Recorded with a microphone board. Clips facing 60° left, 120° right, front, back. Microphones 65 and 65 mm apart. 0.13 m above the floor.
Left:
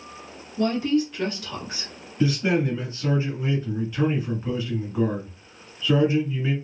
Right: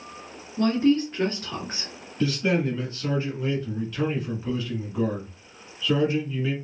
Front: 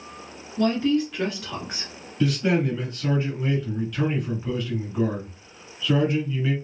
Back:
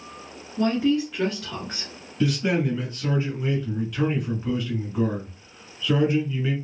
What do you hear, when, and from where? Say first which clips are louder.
0.6 s a woman speaking: right 1 dB, even; 120° right, 1.4 m; by 1.9 s 70° right, 1.6 m
2.2 s a man speaking: left 2 dB, front 1 dB; 100° left, 1.7 m